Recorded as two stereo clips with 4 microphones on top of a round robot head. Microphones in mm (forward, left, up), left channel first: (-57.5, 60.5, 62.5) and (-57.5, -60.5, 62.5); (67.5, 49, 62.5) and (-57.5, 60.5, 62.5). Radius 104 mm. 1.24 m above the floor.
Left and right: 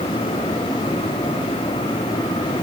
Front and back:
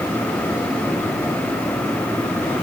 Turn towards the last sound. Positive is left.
No sound to turn to.